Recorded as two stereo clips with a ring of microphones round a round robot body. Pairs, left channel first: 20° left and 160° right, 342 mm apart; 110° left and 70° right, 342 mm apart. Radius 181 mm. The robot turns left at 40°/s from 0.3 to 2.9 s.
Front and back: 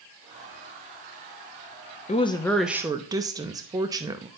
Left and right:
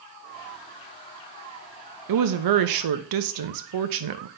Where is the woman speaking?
45° right, 0.7 m; by 4.3 s 80° right, 0.7 m.